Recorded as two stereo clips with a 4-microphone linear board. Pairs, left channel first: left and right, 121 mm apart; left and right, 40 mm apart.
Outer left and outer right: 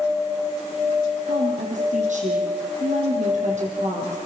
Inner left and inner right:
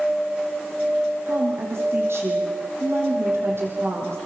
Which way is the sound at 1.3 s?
70° right (ahead or behind).